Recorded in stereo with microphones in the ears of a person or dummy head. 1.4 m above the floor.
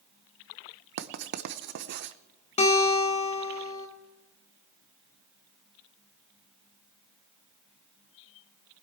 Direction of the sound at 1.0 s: 60° right (ahead or behind).